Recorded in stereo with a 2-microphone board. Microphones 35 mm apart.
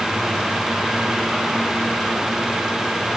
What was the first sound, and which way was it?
Only background noise.